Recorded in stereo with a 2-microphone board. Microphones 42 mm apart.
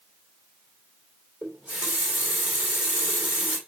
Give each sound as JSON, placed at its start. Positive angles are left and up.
{"t": 1.4, "sound": "a running tap", "side_deg": -35, "distance_m": 2.0}